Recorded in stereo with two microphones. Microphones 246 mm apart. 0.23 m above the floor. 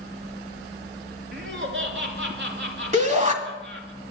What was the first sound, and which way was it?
Laughter, 55° right (ahead or behind).